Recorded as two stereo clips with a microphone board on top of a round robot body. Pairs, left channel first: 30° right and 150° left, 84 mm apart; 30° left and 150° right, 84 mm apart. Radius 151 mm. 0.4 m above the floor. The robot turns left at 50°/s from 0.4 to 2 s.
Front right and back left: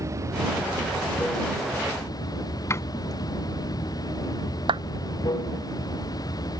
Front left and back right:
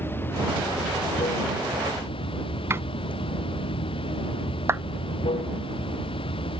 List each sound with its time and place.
0.0 s running water: 95° left; by 6.6 s 15° left
2.7 s a door slam: 85° right
4.7 s a clap: 150° left